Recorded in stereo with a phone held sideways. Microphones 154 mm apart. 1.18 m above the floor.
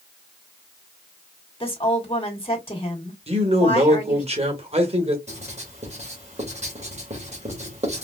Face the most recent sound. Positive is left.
turn(degrees=-45)  # may be behind; listen again after turning